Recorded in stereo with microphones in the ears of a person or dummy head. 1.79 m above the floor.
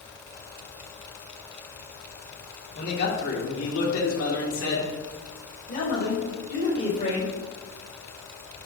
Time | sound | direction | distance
2.8 | a man speaking | 55° left (ahead or behind) | 2.5 m